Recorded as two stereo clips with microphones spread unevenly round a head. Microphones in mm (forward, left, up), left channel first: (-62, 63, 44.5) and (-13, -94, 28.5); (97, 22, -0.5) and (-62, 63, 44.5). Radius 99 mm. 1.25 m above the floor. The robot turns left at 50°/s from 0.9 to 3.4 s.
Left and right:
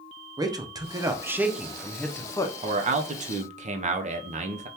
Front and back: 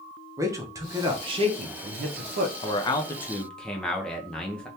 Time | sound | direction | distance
0.4 | a man speaking | 110° right | 0.6 m
2.6 | a man speaking | 45° right | 0.6 m